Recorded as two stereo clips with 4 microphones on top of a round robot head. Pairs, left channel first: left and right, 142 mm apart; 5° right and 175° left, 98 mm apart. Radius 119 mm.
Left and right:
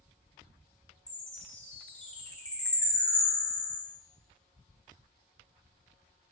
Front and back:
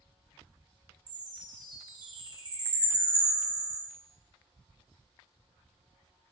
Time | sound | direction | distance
1.1 | a chime | 170° left | 0.9 m